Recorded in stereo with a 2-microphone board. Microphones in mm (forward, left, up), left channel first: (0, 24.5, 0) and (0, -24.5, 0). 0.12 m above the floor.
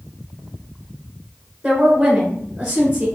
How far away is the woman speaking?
About 1.5 m.